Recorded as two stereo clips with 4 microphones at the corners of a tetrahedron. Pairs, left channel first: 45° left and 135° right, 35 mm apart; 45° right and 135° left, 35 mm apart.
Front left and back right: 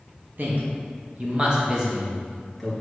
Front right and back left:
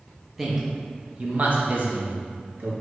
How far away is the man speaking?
About 0.9 m.